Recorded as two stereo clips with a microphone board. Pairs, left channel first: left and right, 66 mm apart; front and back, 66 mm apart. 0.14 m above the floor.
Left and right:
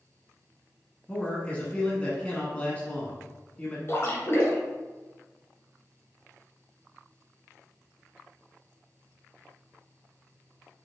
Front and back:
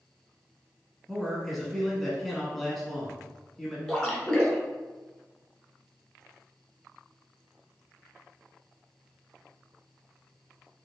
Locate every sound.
1.1 s a man speaking: 80° left, 1.1 m
3.9 s a splash: 75° left, 1.3 m